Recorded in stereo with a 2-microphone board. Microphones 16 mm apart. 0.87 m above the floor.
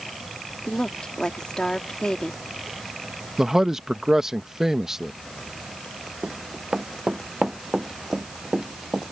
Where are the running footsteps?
55° right (ahead or behind); by 9.0 s 70° right (ahead or behind).